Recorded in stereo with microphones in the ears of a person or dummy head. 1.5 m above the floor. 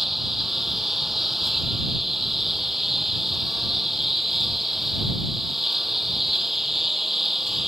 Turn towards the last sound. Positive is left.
turn(degrees=-5)  # may be behind; listen again after turning